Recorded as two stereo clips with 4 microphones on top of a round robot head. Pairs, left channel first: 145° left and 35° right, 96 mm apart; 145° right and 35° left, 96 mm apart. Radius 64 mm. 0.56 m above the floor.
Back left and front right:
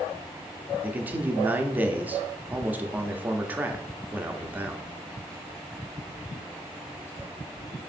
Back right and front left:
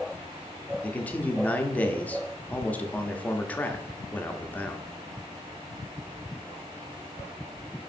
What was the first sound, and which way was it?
A man speaking, 90° right.